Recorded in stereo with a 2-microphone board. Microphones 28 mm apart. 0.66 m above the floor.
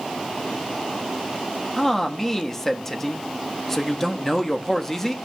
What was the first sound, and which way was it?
A man speaking, 10° left (ahead or behind).